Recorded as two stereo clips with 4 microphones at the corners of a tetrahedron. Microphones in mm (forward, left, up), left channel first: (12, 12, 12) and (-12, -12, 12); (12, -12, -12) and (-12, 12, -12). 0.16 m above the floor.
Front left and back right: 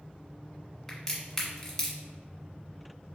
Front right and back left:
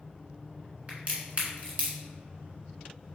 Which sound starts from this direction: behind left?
A crack, at 0.9 s.